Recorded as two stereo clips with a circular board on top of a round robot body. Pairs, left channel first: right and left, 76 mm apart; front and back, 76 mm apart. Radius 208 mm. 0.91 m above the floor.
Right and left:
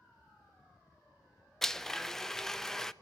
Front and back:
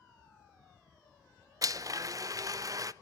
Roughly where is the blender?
Behind.